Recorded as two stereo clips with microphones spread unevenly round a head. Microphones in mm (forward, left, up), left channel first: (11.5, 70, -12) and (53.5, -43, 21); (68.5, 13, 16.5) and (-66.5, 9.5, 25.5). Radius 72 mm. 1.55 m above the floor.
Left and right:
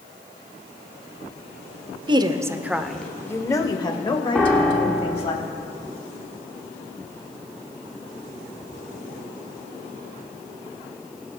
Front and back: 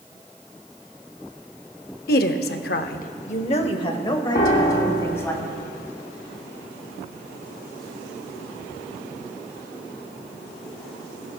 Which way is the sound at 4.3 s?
25° left.